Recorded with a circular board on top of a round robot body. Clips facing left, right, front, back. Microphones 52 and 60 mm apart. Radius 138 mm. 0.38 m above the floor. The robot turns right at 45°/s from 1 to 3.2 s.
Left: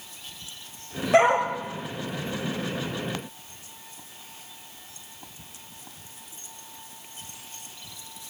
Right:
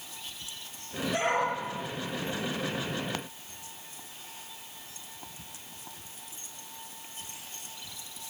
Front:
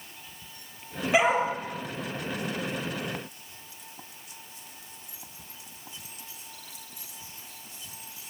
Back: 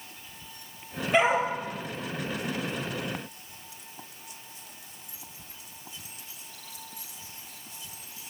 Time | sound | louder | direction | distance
1.1 | a dog barking | left 9 dB, even | 85° left | 6.5 m